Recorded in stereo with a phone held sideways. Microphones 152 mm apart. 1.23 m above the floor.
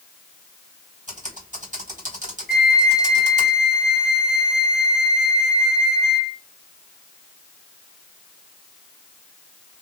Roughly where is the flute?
Left.